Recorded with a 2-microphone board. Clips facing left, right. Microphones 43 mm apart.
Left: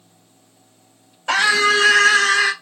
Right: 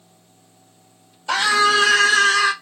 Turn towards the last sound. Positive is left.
turn(degrees=35)  # may be behind; listen again after turning